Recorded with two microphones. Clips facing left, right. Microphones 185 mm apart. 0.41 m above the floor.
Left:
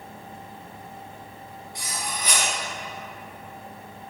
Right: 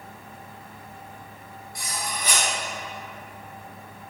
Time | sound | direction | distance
1.8 | cutlery clinking | 40° right (ahead or behind) | 1.4 m